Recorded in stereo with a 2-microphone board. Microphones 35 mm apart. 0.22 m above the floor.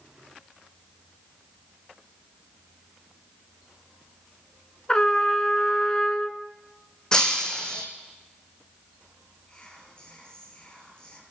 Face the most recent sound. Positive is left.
turn(degrees=25)  # may be behind; listen again after turning